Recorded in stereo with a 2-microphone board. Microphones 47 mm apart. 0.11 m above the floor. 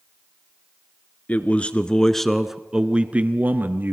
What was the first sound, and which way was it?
A man speaking, 35° left (ahead or behind).